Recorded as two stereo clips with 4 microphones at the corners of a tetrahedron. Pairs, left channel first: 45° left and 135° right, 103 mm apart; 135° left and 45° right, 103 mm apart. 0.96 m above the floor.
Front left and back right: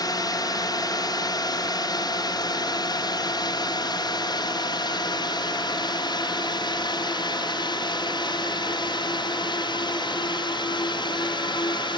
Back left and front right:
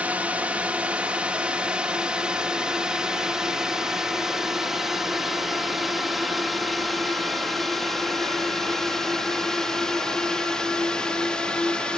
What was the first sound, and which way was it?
A drone, 25° left.